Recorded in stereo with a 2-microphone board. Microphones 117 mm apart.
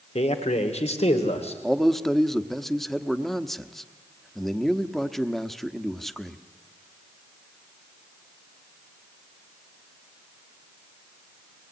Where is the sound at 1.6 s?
Centre (ahead or behind), 1.0 m.